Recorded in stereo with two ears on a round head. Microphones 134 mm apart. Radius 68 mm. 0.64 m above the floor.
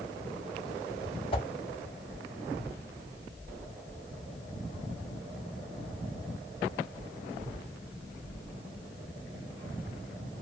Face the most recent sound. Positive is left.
turn(degrees=35)  # may be behind; listen again after turning